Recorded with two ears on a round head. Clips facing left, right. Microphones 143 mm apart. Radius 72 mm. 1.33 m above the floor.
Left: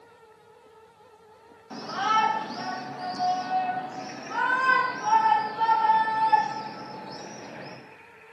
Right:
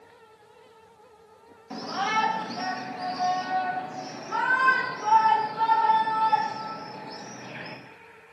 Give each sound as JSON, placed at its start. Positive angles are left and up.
{"t": 1.7, "sound": "a shout", "side_deg": -20, "distance_m": 2.5}